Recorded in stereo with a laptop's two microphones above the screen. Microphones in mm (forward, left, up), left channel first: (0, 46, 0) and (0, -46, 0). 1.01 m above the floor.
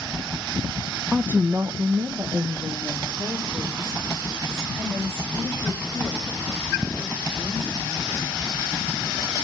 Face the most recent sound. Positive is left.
turn(degrees=-15)  # may be behind; listen again after turning